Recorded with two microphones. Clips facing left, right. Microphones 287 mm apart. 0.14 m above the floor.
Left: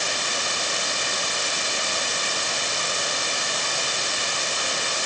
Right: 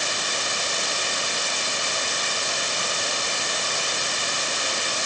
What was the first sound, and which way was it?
Only background noise.